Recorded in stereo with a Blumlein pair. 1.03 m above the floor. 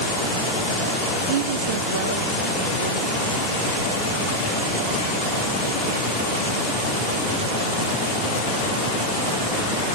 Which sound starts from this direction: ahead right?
A woman speaking, at 1.3 s.